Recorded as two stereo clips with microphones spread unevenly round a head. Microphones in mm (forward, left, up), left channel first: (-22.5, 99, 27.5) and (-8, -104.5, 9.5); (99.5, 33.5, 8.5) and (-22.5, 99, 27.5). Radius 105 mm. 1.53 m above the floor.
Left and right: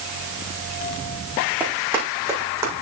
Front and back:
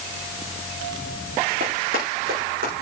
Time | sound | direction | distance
1.6 | running footsteps | 170° right | 6.5 m